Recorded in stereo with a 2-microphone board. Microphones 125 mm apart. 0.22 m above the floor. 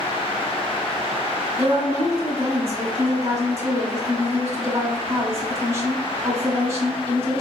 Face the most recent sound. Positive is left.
turn(degrees=-25)  # may be behind; listen again after turning